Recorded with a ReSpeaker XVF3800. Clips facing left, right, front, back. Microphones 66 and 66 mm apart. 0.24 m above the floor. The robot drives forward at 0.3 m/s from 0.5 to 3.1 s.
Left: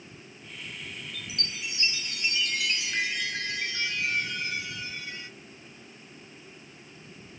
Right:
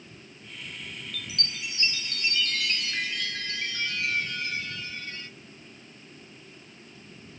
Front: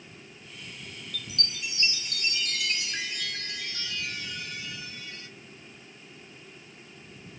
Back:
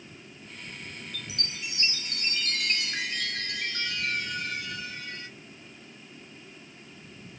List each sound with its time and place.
1.1 s a chime: 120° left, 0.5 m; by 5.3 s 160° left, 0.9 m